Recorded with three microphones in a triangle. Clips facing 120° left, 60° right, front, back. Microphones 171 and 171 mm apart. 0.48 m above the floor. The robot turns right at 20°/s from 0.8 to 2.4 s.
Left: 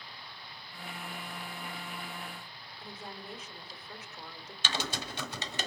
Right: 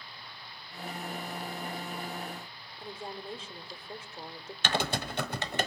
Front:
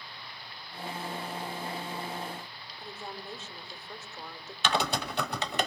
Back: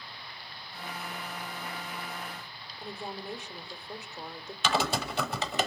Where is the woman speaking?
110° right, 1.1 m.